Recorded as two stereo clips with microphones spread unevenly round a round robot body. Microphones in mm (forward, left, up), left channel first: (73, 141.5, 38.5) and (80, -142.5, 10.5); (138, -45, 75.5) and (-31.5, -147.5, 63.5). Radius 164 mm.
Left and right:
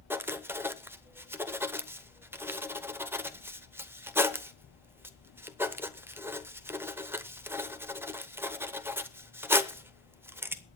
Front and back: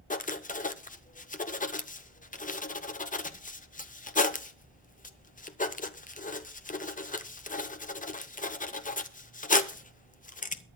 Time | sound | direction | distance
0.1 | writing | 15° right | 0.9 m